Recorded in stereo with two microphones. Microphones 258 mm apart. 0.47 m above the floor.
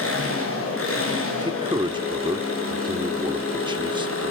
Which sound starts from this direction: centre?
A man speaking, at 1.4 s.